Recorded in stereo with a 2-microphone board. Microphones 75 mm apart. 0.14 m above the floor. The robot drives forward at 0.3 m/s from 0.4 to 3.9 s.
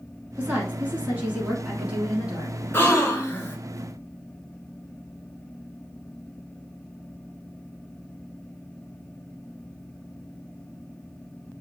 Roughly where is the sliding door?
I don't hear a sliding door.